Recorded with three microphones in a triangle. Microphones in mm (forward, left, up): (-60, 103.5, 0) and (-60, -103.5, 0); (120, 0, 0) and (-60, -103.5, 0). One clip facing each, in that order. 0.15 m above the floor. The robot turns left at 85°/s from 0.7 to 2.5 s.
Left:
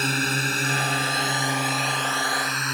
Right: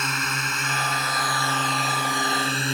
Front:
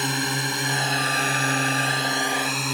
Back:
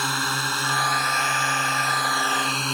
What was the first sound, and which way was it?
A drone, 85° left.